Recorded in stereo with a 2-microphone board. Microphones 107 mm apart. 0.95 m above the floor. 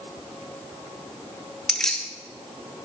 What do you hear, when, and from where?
1.7 s keys jangling: 5° left (ahead or behind), 0.5 m